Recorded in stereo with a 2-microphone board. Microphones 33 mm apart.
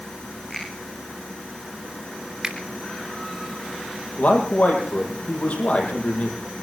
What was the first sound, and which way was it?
A finger snap, 15° left (ahead or behind).